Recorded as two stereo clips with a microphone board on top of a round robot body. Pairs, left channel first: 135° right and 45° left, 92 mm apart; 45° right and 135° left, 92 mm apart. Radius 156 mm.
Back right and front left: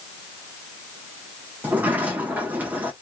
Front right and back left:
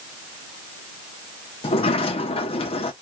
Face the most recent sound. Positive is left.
turn(degrees=-30)